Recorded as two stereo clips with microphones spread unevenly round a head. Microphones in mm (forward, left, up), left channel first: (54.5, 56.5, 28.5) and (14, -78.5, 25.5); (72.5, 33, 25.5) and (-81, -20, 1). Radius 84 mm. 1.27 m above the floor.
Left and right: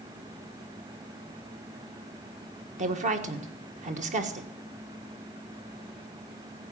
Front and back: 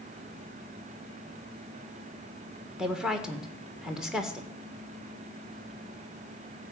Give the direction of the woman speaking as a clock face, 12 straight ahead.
3 o'clock.